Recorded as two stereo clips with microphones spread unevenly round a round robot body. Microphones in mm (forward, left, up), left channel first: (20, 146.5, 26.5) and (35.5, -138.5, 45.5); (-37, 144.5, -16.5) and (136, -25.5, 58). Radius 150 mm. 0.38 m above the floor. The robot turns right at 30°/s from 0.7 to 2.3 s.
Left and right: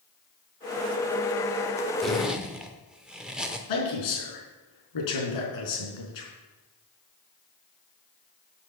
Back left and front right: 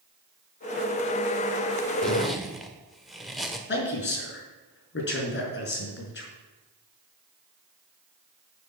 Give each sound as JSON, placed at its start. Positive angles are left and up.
{"t": 2.0, "sound": "a zipper", "azimuth_deg": 170, "distance_m": 1.1}
{"t": 3.7, "sound": "a man speaking", "azimuth_deg": 95, "distance_m": 4.5}